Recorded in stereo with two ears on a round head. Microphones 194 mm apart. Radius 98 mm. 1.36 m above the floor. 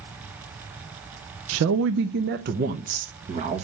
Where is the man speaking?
75° right (ahead or behind), 0.7 m; by 3.6 s 35° right (ahead or behind), 1.5 m.